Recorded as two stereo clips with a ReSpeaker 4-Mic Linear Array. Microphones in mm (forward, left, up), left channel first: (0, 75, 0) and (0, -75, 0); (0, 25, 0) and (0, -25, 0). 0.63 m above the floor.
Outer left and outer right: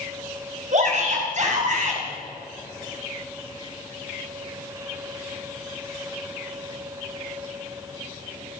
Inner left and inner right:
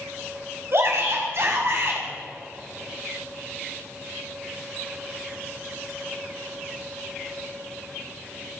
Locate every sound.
0.7 s a shout: 50° right (ahead or behind), 5.5 m